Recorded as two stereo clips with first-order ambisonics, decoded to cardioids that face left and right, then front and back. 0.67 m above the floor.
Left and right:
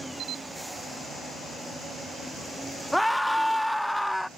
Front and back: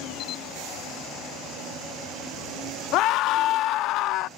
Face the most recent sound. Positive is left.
turn(degrees=0)